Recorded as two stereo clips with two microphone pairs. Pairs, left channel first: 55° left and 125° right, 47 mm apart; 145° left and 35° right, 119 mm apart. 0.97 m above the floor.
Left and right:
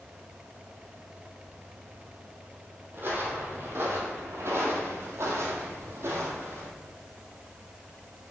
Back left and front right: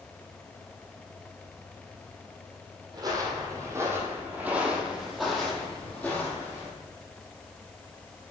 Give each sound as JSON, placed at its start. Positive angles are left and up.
{"t": 2.9, "sound": "footsteps", "azimuth_deg": -85, "distance_m": 2.0}